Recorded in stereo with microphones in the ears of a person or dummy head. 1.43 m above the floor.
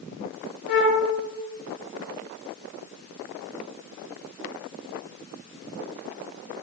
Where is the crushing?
I don't hear crushing.